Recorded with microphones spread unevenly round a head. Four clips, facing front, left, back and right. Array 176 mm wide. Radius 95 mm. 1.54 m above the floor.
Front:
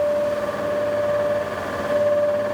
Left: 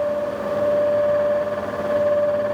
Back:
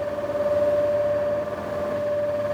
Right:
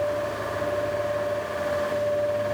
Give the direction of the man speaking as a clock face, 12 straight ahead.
I don't hear a man speaking.